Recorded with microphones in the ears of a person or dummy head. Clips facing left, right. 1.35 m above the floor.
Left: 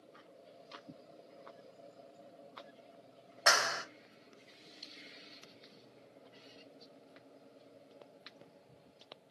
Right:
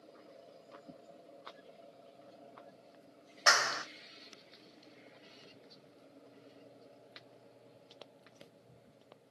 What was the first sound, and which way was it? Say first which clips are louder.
A clap: left 1 dB; 15° left (ahead or behind).